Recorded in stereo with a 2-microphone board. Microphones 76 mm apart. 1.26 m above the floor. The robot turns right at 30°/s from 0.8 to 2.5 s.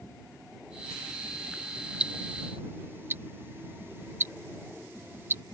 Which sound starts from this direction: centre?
Ticking, at 2.0 s.